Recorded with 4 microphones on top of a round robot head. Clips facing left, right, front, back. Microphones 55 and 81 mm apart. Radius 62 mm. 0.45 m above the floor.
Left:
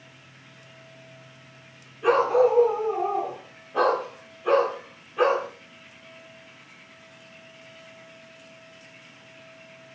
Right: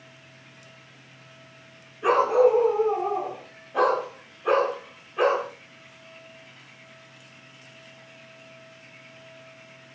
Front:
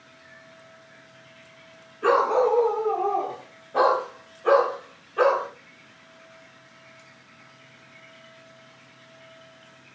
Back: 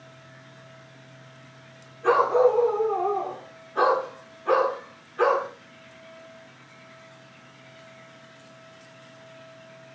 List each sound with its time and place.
2.0 s a dog barking: 10° right, 5 m; by 5.5 s 5° left, 6.5 m